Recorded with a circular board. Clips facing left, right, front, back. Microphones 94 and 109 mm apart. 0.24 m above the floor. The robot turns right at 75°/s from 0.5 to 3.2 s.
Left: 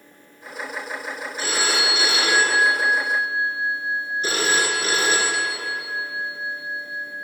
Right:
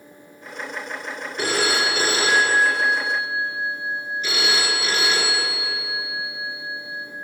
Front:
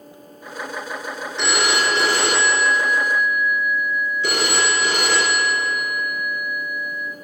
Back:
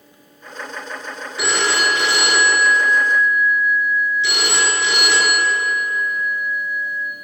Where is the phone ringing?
95° right, 3 m; by 7.1 s 40° left, 3 m.